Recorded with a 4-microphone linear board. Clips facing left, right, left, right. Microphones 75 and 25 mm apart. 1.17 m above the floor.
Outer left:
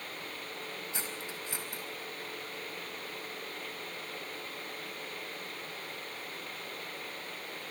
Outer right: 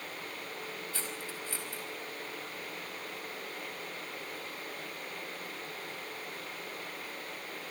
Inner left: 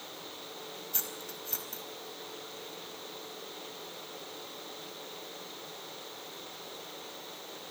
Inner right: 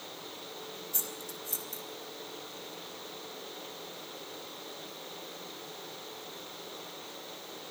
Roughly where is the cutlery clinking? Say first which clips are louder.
Even, even; centre.